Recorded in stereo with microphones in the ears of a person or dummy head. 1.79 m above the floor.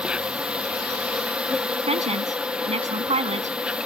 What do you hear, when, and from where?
0.0 s an insect: 10° right (ahead or behind)
1.9 s a woman speaking: 30° right (ahead or behind)